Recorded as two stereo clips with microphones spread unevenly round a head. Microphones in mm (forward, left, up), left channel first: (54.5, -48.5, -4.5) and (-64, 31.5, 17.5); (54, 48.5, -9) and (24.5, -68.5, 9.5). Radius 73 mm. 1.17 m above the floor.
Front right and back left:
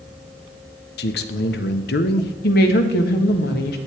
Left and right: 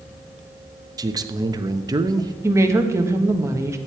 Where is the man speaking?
45° right, 1.1 m.